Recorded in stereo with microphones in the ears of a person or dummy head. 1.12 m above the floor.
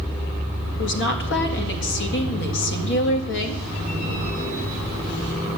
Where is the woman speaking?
55° left (ahead or behind), 2.0 m.